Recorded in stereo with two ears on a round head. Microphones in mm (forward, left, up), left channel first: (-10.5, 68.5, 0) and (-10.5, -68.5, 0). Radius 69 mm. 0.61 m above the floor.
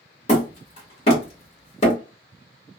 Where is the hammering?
40° left (ahead or behind), 1.4 m.